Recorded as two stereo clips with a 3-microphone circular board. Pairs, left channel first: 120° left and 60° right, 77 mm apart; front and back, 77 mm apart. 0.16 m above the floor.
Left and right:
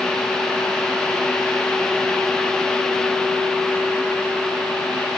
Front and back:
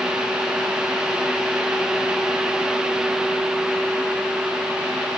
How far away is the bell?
No bell in this recording.